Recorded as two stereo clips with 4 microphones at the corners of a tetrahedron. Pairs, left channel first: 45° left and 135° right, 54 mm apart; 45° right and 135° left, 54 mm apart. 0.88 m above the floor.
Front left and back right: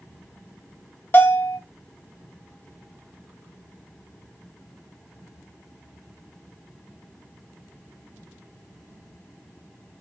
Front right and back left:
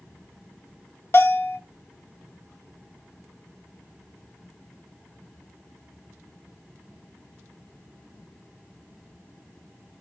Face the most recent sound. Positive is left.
turn(degrees=-5)